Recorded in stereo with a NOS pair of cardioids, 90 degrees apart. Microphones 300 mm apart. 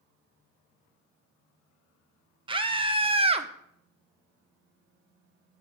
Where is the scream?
15° right, 1.5 m; by 3.5 s 20° right, 0.9 m.